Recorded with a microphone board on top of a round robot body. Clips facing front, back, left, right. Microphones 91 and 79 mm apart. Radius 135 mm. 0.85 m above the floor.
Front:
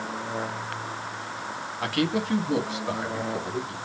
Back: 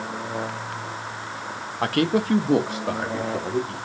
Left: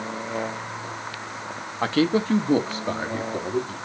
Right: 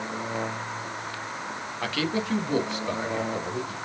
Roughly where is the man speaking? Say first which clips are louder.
Back 5 dB, left 8 dB; behind left.